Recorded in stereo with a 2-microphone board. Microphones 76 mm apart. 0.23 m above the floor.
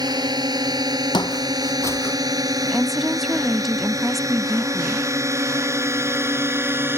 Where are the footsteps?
75° left (ahead or behind); by 2.2 s 25° left (ahead or behind).